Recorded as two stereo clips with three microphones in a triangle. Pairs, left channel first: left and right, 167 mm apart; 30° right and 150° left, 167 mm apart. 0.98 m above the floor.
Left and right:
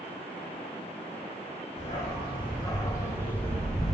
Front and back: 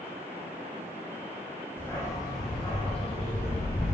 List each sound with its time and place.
1.8 s a dog barking: 45° left, 1.6 m; by 4.0 s straight ahead, 2.0 m